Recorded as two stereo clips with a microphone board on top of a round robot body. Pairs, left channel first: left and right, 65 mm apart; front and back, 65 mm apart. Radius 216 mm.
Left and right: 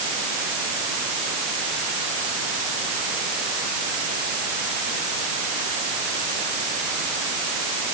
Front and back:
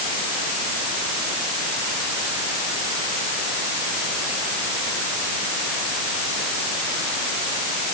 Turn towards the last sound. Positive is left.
No sound to turn to.